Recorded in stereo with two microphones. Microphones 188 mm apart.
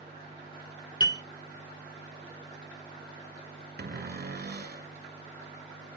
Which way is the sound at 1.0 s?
25° left (ahead or behind).